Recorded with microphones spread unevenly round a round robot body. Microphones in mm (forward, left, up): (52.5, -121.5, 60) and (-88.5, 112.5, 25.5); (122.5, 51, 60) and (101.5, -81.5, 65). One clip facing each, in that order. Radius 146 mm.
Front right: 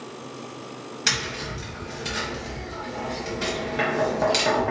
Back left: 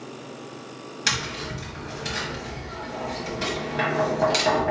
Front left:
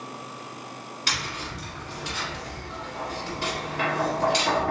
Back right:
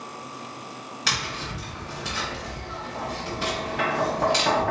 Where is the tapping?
145° right, 1.0 m.